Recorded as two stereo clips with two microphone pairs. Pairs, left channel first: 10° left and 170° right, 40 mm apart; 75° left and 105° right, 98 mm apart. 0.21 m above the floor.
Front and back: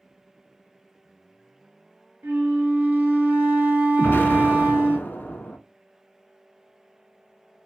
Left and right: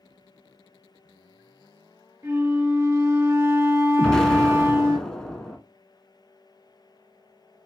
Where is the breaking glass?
I don't hear breaking glass.